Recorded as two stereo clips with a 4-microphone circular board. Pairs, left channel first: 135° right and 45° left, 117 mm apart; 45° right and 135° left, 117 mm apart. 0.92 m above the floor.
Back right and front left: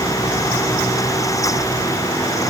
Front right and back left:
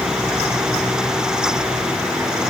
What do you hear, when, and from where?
Only background noise.